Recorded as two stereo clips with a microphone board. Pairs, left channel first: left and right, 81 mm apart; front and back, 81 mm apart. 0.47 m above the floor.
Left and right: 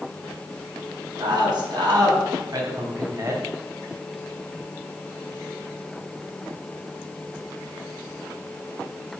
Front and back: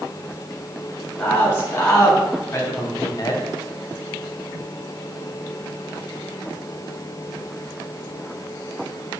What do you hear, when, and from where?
1.2 s a man speaking: 60° right, 4.5 m; by 3.5 s 35° right, 2 m